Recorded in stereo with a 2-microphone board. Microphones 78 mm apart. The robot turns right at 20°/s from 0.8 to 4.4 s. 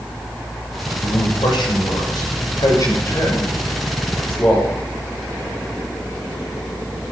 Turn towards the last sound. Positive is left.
turn(degrees=20)  # may be behind; listen again after turning